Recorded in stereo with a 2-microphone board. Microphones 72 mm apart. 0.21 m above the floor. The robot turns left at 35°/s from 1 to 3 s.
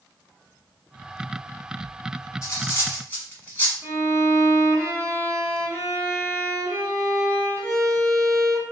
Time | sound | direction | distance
2.4 | cutlery clinking | 40° left (ahead or behind) | 0.9 m
3.8 | a violin | 40° right (ahead or behind) | 1.0 m